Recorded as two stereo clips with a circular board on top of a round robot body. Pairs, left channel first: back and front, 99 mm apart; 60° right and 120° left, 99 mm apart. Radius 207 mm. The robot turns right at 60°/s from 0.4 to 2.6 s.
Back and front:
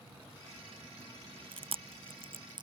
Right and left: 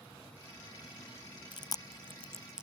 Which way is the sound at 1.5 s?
25° right.